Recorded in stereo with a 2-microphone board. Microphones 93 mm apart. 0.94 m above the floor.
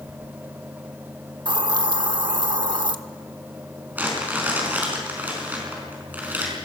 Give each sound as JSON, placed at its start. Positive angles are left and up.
{"t": 1.4, "sound": "a hiss", "side_deg": -55, "distance_m": 0.9}
{"t": 4.0, "sound": "crumpling", "side_deg": -20, "distance_m": 5.0}